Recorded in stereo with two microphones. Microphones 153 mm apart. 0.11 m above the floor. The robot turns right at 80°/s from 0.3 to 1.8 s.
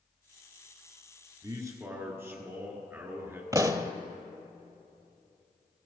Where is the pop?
25° right (ahead or behind), 0.6 m.